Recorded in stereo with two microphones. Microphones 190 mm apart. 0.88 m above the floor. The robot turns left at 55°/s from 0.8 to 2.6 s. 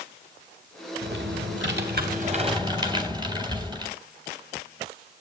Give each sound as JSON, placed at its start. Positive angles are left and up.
{"t": 1.0, "sound": "typing on a keyboard", "azimuth_deg": -70, "distance_m": 3.5}